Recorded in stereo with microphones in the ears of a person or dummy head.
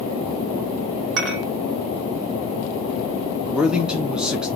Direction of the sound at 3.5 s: 5° right (ahead or behind).